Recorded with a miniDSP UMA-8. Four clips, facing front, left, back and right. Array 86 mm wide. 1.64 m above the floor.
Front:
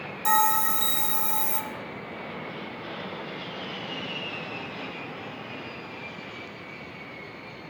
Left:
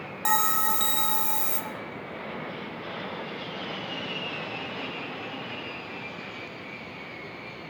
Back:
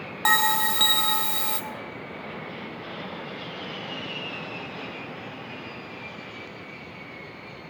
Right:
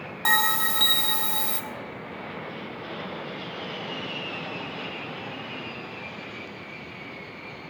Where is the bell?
165° right, 1.0 m.